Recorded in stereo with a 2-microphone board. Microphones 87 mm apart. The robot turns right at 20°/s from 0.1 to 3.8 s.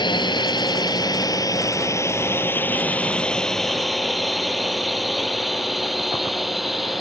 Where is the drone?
60° left (ahead or behind); by 7.0 s centre (ahead or behind).